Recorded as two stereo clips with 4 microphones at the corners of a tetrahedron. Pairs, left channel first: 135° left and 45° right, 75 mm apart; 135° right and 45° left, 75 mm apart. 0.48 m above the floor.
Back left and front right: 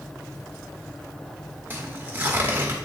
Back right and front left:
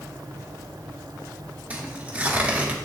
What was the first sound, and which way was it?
Tearing paper, 10° right.